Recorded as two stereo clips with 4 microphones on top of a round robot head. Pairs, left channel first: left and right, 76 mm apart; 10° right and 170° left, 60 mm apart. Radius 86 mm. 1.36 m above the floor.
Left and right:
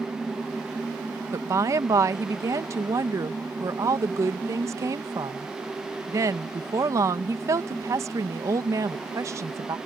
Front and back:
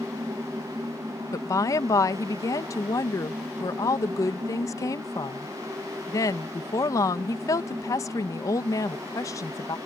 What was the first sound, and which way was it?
A woman speaking, 40° right.